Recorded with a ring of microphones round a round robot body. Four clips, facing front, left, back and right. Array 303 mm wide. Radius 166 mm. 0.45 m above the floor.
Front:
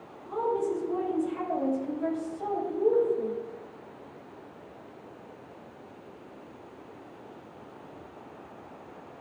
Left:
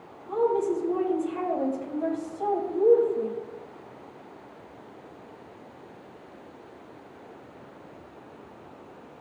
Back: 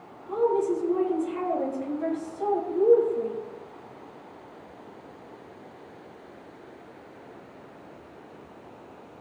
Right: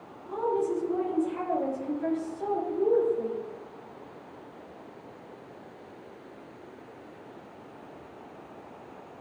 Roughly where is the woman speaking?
Behind left.